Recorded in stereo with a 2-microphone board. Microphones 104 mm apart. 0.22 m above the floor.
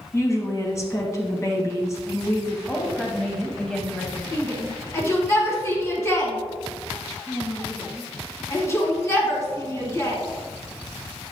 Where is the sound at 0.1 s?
30° left (ahead or behind), 1.7 m.